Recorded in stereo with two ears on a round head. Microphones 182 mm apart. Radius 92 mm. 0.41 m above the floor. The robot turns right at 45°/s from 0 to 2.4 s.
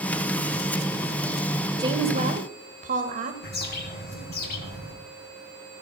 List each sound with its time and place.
1.8 s a woman speaking: 20° right (ahead or behind), 1.7 m; by 3.3 s 40° right (ahead or behind), 1.7 m
3.4 s a bird: 50° left (ahead or behind), 3 m